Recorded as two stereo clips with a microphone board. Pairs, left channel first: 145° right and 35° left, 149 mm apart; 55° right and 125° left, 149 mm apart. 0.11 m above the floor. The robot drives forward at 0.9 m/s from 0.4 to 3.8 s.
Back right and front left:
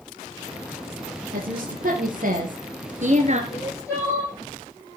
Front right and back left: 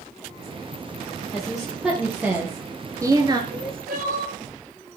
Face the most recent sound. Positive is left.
turn(degrees=145)